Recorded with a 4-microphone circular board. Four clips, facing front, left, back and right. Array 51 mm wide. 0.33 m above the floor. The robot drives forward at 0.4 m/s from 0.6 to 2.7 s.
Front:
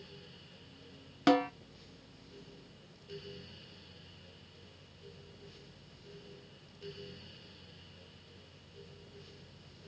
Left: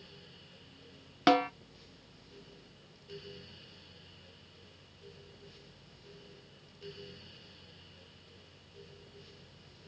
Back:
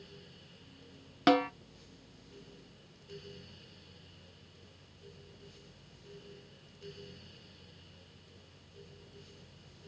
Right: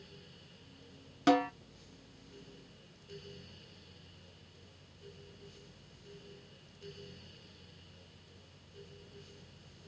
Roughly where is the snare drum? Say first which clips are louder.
Left 2 dB, back 1 dB; left.